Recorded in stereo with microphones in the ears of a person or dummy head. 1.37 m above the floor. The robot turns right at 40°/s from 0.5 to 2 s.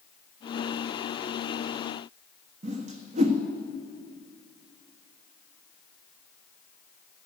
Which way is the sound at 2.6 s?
40° right (ahead or behind).